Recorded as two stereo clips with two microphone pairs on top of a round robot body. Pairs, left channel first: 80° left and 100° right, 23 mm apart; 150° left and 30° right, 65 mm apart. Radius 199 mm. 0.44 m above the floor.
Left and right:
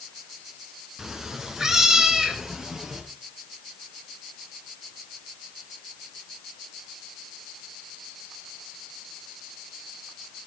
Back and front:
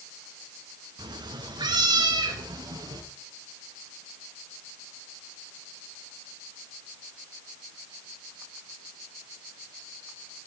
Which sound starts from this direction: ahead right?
A cat meowing, at 1.0 s.